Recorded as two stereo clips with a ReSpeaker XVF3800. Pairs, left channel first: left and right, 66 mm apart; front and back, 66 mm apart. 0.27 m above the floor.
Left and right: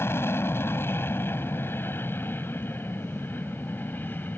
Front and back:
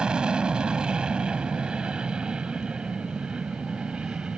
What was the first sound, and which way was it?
An aircraft, 110° left.